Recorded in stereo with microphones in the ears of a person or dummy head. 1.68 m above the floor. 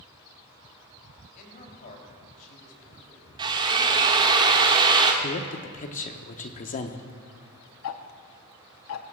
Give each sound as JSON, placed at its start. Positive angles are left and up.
{"t": 1.4, "sound": "a man speaking", "side_deg": 45, "distance_m": 3.5}
{"t": 3.4, "sound": "a drill", "side_deg": -25, "distance_m": 1.0}
{"t": 5.2, "sound": "a man speaking", "side_deg": 40, "distance_m": 1.0}
{"t": 7.8, "sound": "ticking", "side_deg": 75, "distance_m": 0.8}